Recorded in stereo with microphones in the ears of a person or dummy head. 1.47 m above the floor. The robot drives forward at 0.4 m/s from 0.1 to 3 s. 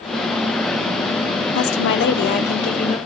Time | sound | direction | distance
1.6 | a woman speaking | 75° left (ahead or behind) | 0.7 m